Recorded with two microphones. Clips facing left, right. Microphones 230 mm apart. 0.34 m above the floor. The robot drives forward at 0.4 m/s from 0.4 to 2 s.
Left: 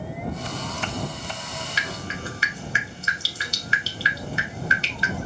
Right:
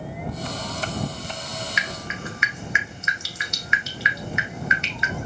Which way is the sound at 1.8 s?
35° left (ahead or behind).